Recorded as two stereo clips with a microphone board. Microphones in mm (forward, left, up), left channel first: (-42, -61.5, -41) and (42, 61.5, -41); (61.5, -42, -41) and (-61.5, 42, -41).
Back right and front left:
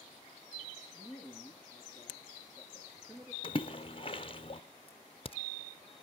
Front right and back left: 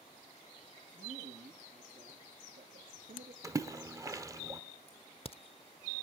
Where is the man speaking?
125° left, 5.5 m; by 3.3 s 140° left, 6 m.